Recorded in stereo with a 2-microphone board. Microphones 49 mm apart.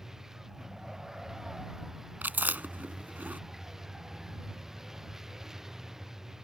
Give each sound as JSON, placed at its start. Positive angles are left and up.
{"t": 0.0, "sound": "a vehicle", "side_deg": -10}
{"t": 2.2, "sound": "chewing", "side_deg": -40}